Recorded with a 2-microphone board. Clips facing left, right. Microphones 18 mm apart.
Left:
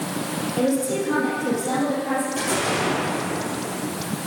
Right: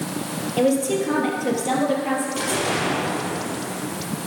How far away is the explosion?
About 3.5 m.